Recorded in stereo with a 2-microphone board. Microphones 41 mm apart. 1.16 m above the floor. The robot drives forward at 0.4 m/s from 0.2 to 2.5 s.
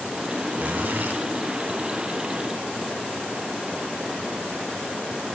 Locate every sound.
0.6 s a zipper: 40° right (ahead or behind), 1.6 m; by 1.2 s 45° right (ahead or behind), 1.5 m